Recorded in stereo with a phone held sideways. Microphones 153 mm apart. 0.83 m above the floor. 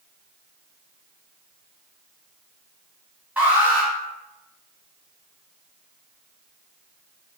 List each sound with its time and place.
3.4 s an alarm: 10° right (ahead or behind), 1.4 m